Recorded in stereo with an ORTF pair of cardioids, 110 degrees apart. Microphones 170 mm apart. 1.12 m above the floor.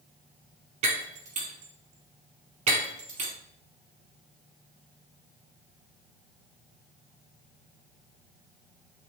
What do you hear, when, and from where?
0.8 s breaking glass: 40° right, 3.5 m